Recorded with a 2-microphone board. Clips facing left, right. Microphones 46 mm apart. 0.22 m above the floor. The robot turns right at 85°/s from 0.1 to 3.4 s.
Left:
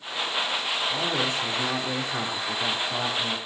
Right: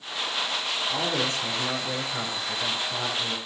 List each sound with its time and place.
0.9 s a man speaking: 20° right, 4 m; by 3.4 s 170° right, 4 m